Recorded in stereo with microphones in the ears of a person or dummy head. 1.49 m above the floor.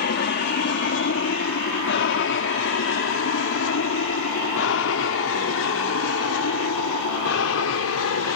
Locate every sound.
0.0 s an aircraft: 55° left (ahead or behind); by 8.4 s 75° left (ahead or behind)